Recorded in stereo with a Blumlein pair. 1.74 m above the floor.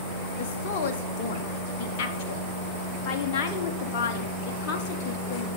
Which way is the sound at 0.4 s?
45° left.